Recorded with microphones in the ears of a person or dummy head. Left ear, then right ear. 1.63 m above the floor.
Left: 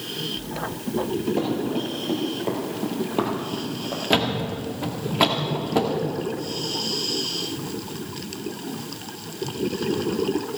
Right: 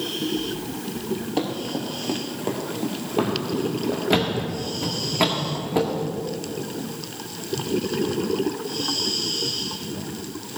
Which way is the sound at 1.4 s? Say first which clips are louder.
Left 2 dB; 35° right (ahead or behind).